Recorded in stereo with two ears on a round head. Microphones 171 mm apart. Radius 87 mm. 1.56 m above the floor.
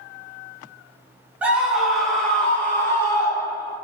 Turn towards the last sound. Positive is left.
turn(degrees=25)  # may be behind; listen again after turning